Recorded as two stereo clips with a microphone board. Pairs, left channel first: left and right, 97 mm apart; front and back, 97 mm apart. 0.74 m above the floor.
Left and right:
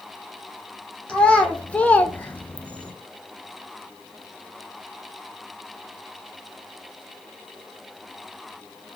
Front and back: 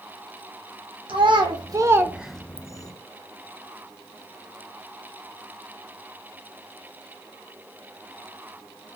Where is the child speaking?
170° left, 0.9 m; by 2.9 s 15° left, 0.6 m.